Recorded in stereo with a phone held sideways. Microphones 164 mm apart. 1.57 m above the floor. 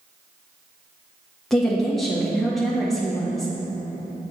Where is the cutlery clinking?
No cutlery clinking in this recording.